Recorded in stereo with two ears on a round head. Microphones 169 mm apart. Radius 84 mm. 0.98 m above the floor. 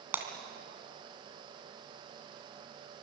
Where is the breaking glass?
10° right (ahead or behind), 2.5 m.